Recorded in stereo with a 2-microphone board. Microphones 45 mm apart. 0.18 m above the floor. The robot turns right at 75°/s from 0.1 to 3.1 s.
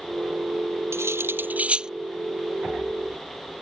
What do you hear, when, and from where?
0.9 s cutlery clinking: 75° right (ahead or behind); by 1.9 s 15° right (ahead or behind)